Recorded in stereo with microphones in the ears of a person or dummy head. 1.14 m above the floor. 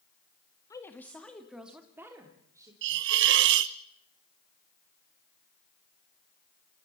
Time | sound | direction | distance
0.7 | a woman speaking | 15° left (ahead or behind) | 1.8 m
2.8 | a hiss | 60° right (ahead or behind) | 0.7 m